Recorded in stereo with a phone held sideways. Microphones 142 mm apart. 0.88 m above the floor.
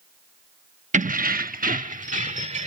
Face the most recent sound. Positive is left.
turn(degrees=-55)  # may be behind; listen again after turning